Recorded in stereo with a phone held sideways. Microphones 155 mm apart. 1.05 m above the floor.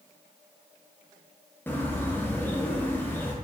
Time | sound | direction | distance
1.7 | a bird | 15° left (ahead or behind) | 0.6 m